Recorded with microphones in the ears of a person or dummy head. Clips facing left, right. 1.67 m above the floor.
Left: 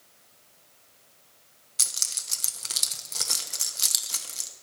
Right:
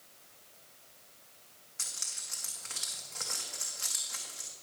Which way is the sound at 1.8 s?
55° left (ahead or behind).